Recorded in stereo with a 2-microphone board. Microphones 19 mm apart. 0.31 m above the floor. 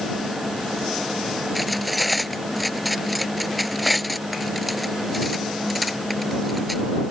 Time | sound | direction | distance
1.6 | cutlery clinking | centre (ahead or behind) | ?